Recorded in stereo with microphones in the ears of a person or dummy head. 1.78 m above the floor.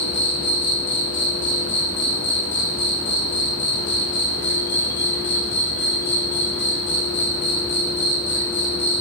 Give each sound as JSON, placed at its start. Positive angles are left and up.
{"t": 0.0, "sound": "an insect", "side_deg": 25, "distance_m": 1.3}